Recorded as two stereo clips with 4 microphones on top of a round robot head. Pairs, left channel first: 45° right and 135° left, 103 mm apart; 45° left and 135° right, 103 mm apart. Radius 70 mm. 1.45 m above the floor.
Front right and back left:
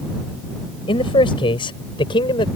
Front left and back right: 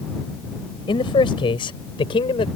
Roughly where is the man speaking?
Ahead.